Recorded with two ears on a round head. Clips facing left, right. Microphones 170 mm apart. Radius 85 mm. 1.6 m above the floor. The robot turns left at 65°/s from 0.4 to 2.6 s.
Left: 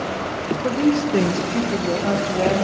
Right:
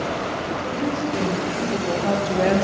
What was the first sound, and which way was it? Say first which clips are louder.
A woman speaking: left 8 dB; 100° left.